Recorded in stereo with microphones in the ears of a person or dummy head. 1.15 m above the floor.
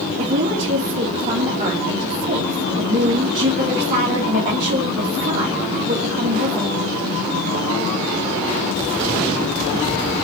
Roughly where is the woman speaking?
Right.